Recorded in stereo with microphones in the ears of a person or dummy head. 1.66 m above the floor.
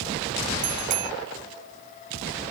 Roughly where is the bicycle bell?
Right.